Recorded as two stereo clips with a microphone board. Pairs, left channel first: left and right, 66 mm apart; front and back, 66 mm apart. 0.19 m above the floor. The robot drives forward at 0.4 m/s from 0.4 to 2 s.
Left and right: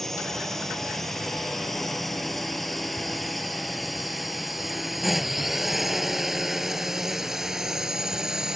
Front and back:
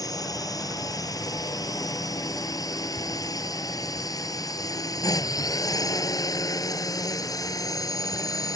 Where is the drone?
5° left; by 8.6 s 10° right.